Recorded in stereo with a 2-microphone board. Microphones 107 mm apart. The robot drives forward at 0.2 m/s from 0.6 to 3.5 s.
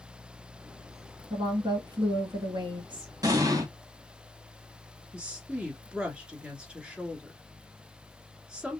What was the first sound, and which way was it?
A woman speaking, 45° right (ahead or behind).